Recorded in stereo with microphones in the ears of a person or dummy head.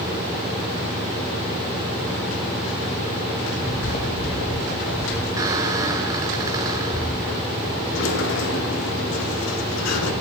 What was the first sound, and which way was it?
Footsteps, 20° left (ahead or behind).